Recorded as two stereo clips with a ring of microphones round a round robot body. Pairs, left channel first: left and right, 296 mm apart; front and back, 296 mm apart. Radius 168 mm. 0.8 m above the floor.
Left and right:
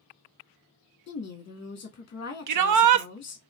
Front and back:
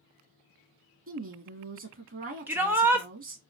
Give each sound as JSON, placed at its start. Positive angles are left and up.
{"t": 1.1, "sound": "a woman speaking", "azimuth_deg": 140, "distance_m": 1.5}
{"t": 2.5, "sound": "a shout", "azimuth_deg": -95, "distance_m": 0.7}